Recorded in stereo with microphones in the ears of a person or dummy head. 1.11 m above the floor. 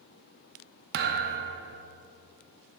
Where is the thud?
60° right (ahead or behind), 0.8 m.